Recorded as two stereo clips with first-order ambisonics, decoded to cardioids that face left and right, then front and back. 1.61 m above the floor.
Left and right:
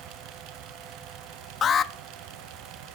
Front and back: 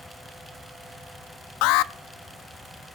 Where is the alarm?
25° left, 0.5 m.